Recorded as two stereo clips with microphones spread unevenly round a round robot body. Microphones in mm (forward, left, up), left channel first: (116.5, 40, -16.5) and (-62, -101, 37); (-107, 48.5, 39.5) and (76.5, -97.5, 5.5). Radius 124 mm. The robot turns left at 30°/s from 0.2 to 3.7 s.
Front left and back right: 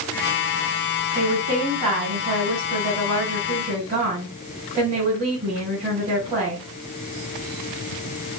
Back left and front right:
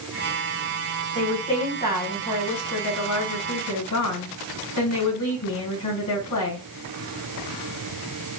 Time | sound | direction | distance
1.1 | a woman speaking | 135° right | 3 m